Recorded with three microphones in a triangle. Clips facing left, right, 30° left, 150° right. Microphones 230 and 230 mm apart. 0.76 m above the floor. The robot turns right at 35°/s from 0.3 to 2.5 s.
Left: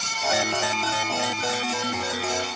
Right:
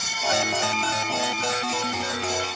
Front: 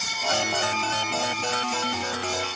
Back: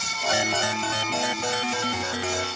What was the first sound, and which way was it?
Only background noise.